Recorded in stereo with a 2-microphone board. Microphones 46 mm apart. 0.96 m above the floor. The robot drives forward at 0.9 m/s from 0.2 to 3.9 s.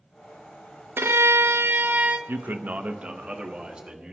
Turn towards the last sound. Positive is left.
turn(degrees=-20)  # may be behind; listen again after turning